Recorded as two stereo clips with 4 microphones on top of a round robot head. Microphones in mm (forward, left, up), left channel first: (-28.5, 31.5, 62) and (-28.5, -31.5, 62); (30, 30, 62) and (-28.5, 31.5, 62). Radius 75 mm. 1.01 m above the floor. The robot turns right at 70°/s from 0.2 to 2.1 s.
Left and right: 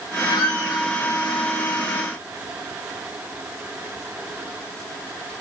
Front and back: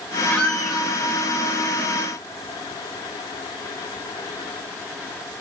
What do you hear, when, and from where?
0.3 s a squeak: 65° left, 2 m; by 0.9 s 105° left, 2 m